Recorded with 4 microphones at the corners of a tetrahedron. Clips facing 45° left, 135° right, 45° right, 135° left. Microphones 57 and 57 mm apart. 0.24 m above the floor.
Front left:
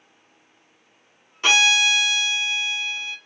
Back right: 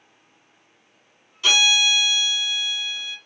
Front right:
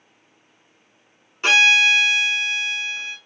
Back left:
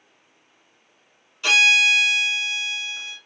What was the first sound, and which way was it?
A violin, straight ahead.